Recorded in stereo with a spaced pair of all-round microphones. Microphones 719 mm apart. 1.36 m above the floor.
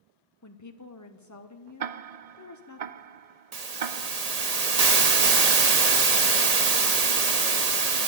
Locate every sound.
0.4 s a woman speaking: 25° left (ahead or behind), 0.8 m
1.8 s ticking: 60° right (ahead or behind), 0.6 m
3.5 s a hiss: 60° right (ahead or behind), 1.3 m